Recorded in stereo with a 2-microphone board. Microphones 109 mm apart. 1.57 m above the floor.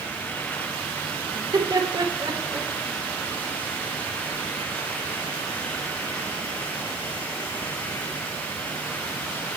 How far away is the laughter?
About 4.5 m.